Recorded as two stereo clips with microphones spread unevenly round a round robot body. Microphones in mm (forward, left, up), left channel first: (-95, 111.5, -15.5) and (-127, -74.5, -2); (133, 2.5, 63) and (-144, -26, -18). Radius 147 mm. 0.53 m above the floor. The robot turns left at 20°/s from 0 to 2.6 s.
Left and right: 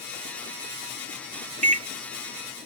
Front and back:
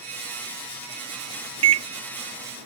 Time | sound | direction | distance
1.6 | a microwave | 135° right | ?